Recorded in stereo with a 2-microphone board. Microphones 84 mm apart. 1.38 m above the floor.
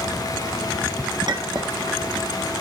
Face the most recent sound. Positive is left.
turn(degrees=-55)  # may be behind; listen again after turning